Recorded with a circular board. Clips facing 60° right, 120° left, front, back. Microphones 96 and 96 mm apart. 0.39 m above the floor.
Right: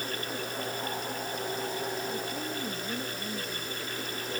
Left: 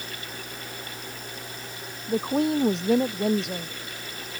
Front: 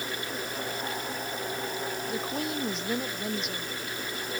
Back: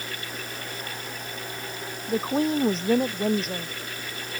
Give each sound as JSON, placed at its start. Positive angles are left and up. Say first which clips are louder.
{"t": 2.1, "sound": "a woman speaking", "louder": "left 11 dB, back 12 dB", "azimuth_deg": 125}